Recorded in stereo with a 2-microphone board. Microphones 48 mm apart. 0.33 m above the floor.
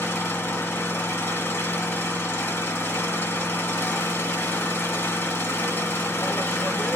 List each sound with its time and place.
0.0 s an engine running: 55° left (ahead or behind), 0.9 m